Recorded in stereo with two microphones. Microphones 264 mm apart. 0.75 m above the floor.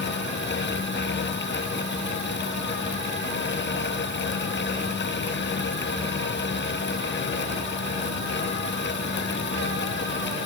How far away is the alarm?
I don't hear an alarm.